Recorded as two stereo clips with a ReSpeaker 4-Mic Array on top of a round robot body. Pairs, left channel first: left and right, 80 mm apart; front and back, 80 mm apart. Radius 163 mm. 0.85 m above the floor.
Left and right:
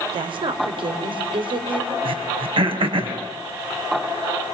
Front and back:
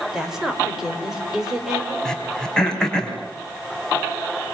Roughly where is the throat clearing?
Right.